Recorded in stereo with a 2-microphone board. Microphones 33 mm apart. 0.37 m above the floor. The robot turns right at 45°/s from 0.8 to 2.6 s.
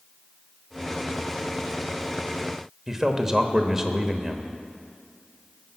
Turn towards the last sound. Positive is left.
turn(degrees=-15)  # may be behind; listen again after turning